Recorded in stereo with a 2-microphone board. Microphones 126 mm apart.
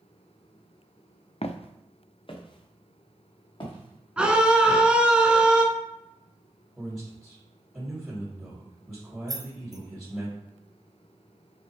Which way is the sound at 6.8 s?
5° right (ahead or behind).